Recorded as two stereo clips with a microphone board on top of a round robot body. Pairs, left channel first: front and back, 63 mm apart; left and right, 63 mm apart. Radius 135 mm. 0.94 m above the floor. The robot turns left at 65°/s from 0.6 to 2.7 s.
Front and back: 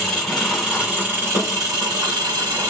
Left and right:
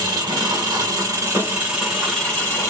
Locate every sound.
0.0 s an engine running: 85° right, 0.8 m; by 2.7 s 140° left, 0.8 m